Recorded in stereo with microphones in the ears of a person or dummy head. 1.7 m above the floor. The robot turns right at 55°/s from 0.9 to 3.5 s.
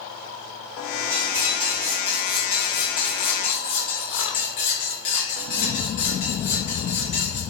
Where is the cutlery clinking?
75° right, 1.2 m; by 7.4 s 60° left, 1.2 m.